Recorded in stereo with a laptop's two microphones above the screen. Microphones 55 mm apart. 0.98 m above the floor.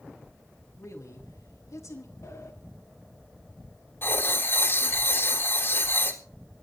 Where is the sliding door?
70° left (ahead or behind), 2.5 m.